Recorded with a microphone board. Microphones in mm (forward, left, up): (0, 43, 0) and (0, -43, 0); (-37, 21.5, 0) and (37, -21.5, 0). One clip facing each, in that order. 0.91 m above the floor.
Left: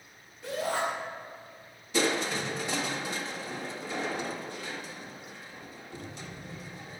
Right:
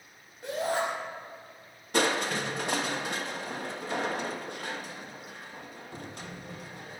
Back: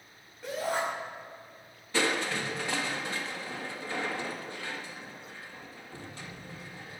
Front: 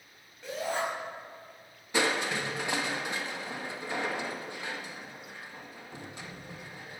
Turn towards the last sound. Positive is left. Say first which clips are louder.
# right 1 dB, front 1 dB
turn(degrees=-100)